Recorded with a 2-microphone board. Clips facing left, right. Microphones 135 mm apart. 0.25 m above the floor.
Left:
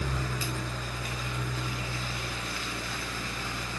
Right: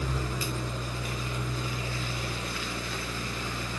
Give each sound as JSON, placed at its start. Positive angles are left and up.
{"t": 0.0, "sound": "an engine running", "side_deg": -25, "distance_m": 3.0}